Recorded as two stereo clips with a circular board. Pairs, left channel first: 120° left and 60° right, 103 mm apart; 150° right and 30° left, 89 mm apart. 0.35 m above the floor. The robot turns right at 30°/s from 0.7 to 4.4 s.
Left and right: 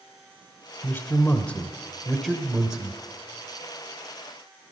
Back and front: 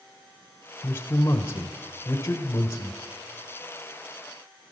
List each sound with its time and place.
0.8 s a man speaking: 165° left, 1.0 m; by 3.0 s 130° right, 1.0 m